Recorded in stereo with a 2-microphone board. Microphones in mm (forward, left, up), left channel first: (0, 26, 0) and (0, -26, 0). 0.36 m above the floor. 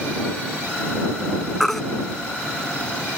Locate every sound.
1.6 s a baby crying: 5° left (ahead or behind)